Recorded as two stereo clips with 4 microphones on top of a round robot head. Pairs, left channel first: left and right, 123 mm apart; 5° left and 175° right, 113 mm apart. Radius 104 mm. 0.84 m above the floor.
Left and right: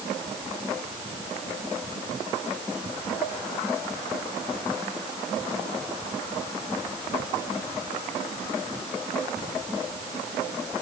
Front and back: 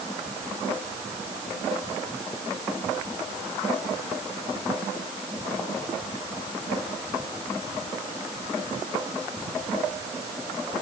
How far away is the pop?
No pop in this recording.